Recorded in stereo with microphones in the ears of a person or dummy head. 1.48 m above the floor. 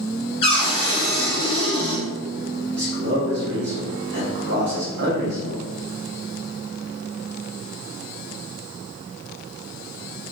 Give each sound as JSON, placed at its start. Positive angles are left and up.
{"t": 0.4, "sound": "a cupboard door", "side_deg": 20, "distance_m": 1.7}
{"t": 2.7, "sound": "a man speaking", "side_deg": -60, "distance_m": 0.9}